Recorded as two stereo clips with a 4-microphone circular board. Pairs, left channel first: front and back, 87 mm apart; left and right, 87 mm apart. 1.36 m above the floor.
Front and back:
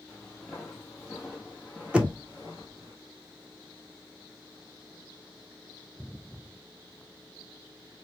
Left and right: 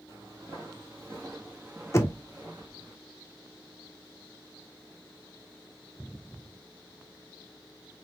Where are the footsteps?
70° right, 1.6 m; by 2.9 s 155° right, 1.7 m.